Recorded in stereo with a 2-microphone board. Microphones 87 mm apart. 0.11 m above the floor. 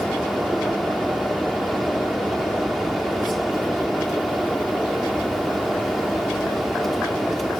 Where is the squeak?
No squeak in this recording.